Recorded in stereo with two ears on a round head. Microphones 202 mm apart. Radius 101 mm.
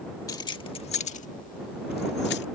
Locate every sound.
0.3 s keys jangling: 15° left (ahead or behind); by 2.5 s 50° left (ahead or behind)